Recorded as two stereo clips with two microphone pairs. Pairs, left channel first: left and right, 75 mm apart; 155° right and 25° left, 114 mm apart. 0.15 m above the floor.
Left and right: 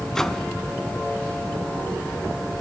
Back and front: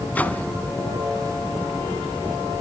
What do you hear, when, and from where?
0.1 s a microwave: 165° left, 1.0 m